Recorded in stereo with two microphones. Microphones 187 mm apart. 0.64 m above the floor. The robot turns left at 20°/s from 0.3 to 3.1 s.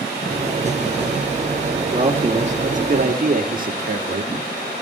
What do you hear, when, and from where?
1.9 s a man speaking: 30° right (ahead or behind), 1.3 m; by 4.3 s 50° right (ahead or behind), 1.3 m